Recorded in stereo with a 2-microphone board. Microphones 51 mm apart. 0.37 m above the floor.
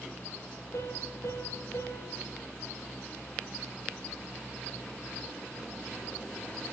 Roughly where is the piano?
Left.